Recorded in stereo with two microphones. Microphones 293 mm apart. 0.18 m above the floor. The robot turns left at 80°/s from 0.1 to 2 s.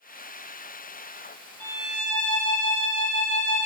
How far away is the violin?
About 1.0 m.